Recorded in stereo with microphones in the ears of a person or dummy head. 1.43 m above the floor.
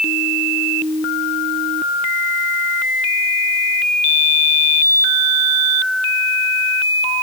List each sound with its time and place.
Only background noise.